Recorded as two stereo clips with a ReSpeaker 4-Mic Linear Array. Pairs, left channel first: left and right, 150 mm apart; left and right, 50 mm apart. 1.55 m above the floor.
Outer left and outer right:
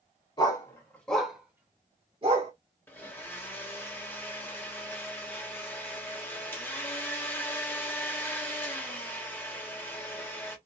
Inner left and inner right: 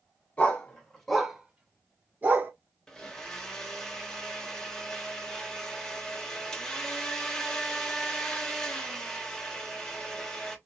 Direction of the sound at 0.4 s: 30° left (ahead or behind).